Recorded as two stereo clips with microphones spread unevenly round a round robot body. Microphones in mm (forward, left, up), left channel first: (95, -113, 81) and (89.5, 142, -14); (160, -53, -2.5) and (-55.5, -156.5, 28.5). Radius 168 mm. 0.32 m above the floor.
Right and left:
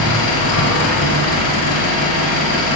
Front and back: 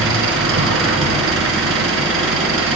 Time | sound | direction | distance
0.0 | an engine running | 125° right | 3 m